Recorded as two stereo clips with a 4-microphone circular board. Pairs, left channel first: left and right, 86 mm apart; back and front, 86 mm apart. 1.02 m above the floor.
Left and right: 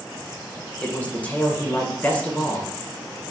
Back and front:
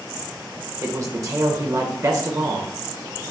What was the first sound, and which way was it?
A man speaking, 25° left.